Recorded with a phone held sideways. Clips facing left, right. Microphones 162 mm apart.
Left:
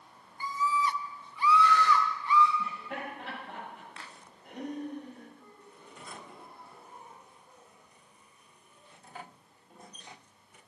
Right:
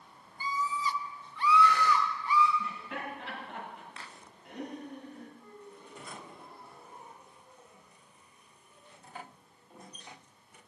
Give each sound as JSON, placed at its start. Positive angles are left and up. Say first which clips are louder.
{"t": 0.4, "sound": "a scream", "louder": "left 3 dB", "side_deg": 60, "distance_m": 1.0}
{"t": 2.6, "sound": "laughter", "louder": "left 1 dB", "side_deg": 70, "distance_m": 8.5}
{"t": 5.4, "sound": "a gasp", "louder": "right 4 dB", "side_deg": 15, "distance_m": 7.0}